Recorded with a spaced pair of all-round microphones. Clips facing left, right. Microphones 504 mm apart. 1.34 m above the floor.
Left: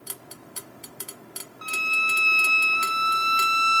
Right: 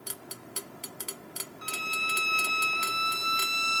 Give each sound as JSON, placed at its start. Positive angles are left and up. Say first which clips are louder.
{"t": 1.6, "sound": "a violin", "louder": "left 3 dB", "side_deg": 25, "distance_m": 1.3}